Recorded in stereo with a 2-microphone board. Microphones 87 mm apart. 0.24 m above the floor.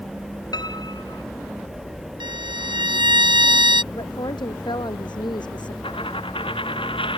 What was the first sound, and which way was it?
A piano, 55° left (ahead or behind).